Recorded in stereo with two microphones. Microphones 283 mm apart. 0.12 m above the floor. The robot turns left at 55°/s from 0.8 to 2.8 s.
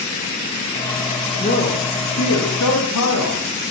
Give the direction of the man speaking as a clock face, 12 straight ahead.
7 o'clock.